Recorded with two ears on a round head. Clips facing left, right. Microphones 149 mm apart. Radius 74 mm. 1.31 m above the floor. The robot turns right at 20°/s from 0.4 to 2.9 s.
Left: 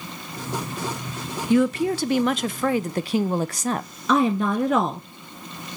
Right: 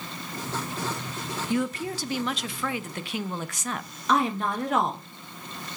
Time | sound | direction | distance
1.5 | a woman speaking | 60° left (ahead or behind) | 0.5 m
4.1 | a woman speaking | 75° left (ahead or behind) | 1.1 m